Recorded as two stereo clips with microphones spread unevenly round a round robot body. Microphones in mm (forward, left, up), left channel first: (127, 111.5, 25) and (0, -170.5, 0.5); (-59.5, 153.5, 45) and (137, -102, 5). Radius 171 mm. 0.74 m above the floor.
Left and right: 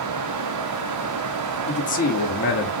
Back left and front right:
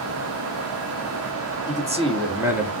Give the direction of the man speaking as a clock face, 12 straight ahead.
12 o'clock.